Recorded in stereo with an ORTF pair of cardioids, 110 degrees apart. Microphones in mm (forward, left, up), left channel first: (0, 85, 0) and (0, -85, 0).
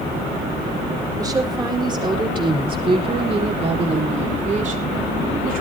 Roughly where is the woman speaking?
Ahead.